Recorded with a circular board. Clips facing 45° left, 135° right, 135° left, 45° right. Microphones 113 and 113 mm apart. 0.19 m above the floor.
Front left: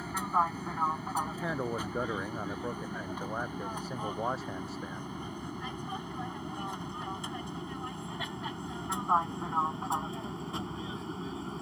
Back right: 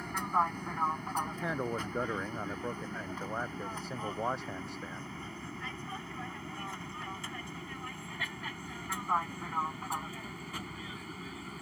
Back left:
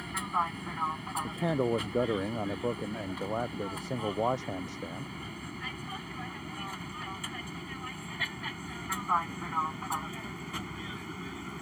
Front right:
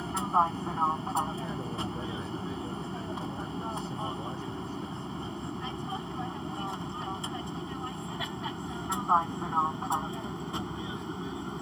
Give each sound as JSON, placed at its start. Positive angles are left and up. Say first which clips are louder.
{"t": 0.0, "sound": "an aircraft", "louder": "front left 1 dB, front right 5 dB", "azimuth_deg": -30}
{"t": 1.2, "sound": "a man speaking", "louder": "front left 1 dB, back left 6 dB", "azimuth_deg": 135}